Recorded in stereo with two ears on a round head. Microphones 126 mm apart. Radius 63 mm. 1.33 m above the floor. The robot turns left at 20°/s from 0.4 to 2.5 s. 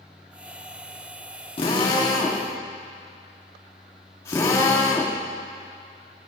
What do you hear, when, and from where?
1.6 s a drill: 40° left (ahead or behind), 1.5 m; by 5.2 s 20° left (ahead or behind), 1.5 m